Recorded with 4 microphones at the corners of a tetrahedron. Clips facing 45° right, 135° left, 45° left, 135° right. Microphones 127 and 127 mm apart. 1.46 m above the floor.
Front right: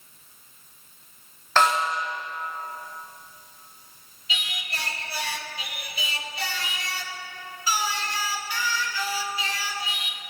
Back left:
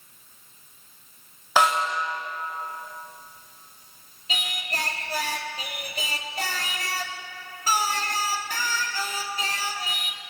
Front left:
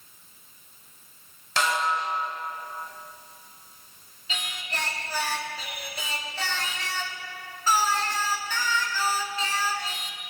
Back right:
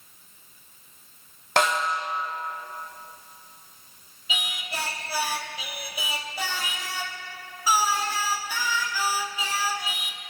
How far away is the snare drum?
About 2 m.